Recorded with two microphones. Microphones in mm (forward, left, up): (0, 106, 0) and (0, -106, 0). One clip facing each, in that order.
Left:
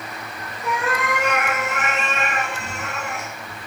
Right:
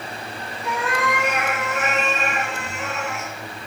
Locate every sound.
0.6 s a cat meowing: 60° left (ahead or behind), 2.5 m; by 3.3 s 45° left (ahead or behind), 1.4 m